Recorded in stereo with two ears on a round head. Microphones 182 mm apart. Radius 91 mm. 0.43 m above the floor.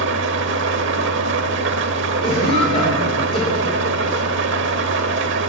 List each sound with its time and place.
0.0 s an engine running: 65° right (ahead or behind), 1.1 m
2.2 s a cough: 30° left (ahead or behind), 7 m